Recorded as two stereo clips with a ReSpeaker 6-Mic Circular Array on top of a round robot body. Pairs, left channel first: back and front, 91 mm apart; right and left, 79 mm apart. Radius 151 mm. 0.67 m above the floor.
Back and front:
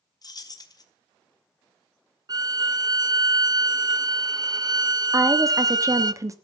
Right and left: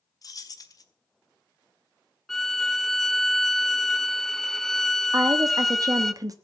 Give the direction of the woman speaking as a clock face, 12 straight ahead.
10 o'clock.